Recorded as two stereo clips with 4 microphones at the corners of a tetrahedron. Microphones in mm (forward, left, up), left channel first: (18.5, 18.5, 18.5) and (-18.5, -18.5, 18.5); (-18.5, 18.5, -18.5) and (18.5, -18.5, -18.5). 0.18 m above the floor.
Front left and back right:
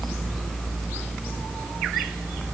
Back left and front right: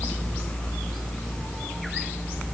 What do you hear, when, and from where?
Only background noise.